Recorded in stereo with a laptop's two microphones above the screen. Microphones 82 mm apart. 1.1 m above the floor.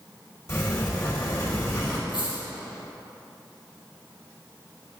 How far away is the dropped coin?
About 3 m.